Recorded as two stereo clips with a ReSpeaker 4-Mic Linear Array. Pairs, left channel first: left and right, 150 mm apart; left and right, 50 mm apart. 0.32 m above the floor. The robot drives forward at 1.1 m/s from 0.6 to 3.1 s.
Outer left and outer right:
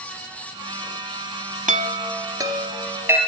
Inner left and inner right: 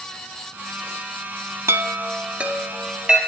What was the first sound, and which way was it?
A chime, 55° right (ahead or behind).